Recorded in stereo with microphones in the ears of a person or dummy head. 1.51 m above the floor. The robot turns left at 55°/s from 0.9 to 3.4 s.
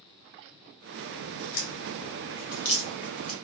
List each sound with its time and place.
1.1 s a crack: 60° left (ahead or behind), 1.8 m; by 3.3 s centre (ahead or behind), 1.8 m